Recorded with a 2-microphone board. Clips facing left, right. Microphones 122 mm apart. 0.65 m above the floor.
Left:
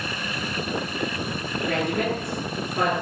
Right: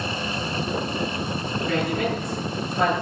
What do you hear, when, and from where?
1.7 s a woman speaking: 50° left (ahead or behind), 9 m; by 2.9 s 60° left (ahead or behind), 8.5 m